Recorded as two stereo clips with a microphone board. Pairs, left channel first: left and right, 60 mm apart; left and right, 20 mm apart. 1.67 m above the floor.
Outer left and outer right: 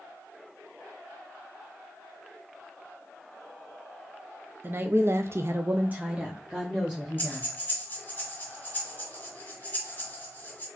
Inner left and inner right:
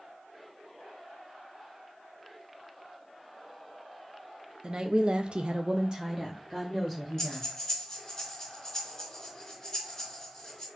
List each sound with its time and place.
4.6 s a woman speaking: 35° right (ahead or behind), 0.7 m; by 7.5 s 5° right (ahead or behind), 1.6 m
7.2 s breathing: 25° left (ahead or behind), 2 m